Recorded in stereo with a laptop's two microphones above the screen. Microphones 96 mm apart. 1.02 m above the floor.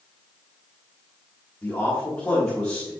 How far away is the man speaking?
About 2 m.